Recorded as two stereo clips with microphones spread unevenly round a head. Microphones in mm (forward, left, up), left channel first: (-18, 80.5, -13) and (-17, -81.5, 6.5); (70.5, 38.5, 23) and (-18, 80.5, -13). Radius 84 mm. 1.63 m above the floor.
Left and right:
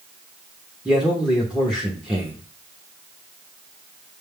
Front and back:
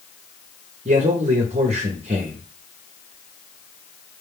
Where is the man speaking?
Straight behind, 0.7 m.